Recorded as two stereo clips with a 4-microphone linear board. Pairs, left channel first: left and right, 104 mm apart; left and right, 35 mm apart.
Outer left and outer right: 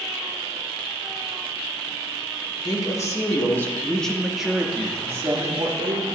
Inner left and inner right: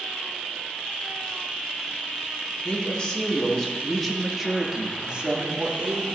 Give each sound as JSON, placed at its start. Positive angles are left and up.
{"t": 2.6, "sound": "a woman speaking", "side_deg": 35, "distance_m": 1.4}